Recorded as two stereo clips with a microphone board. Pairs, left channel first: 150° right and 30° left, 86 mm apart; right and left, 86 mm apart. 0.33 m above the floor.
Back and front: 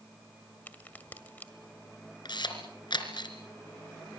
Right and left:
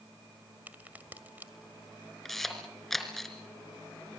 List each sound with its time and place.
0.7 s a crack: 150° left, 1.8 m
2.2 s a camera shutter: 175° right, 3.5 m